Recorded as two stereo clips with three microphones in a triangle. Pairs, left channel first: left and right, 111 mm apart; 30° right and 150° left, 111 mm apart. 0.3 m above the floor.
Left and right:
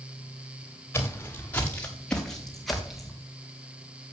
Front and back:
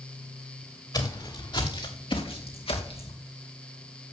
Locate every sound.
0.9 s footsteps: 20° left, 3 m; by 3.1 s 5° right, 3 m